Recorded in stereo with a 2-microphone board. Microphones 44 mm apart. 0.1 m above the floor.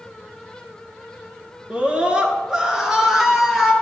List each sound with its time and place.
1.7 s a scream: 25° right (ahead or behind), 1.8 m; by 3.7 s 5° right (ahead or behind), 2.5 m